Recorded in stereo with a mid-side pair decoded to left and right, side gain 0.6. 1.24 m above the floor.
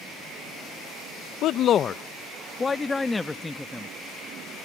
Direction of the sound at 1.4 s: 60° left.